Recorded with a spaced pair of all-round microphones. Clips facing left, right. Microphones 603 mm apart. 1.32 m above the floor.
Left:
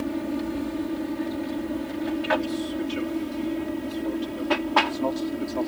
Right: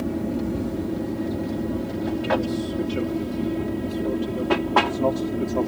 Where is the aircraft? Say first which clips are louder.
Right 2 dB; 65° right (ahead or behind); by 5.7 s 70° right (ahead or behind).